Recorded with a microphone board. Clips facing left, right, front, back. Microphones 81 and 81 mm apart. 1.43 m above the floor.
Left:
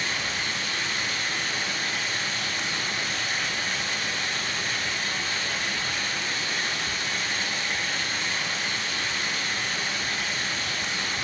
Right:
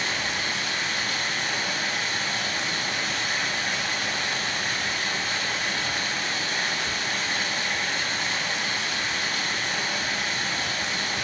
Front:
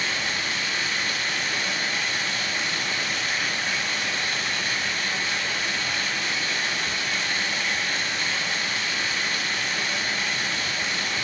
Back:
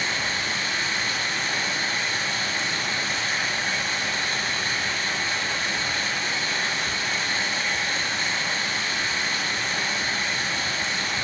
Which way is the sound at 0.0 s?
125° right.